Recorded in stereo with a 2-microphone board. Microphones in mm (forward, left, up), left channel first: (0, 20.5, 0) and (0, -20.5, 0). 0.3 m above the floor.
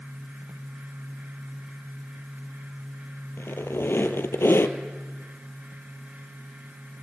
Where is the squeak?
85° left, 1.8 m.